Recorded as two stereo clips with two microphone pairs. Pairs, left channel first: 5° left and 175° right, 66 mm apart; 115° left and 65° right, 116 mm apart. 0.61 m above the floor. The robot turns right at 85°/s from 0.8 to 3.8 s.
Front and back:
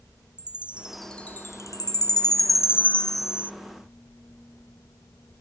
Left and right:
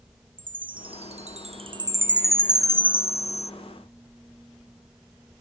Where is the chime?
105° right, 0.7 m; by 3.5 s 125° left, 0.7 m.